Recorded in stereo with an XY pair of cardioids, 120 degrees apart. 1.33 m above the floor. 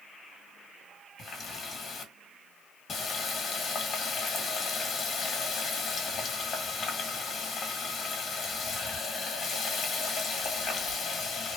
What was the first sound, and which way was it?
A running tap, 40° left.